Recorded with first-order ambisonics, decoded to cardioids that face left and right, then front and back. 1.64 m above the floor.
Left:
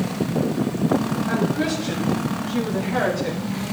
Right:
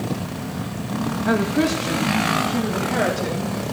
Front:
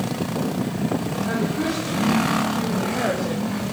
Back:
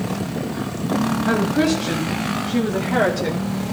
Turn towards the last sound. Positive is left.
turn(degrees=-165)